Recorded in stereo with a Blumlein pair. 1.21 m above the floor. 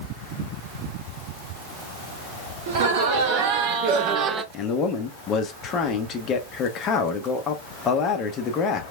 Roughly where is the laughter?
Ahead right.